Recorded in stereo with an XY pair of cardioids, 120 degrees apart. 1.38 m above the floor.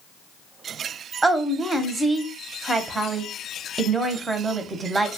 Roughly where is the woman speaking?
Ahead.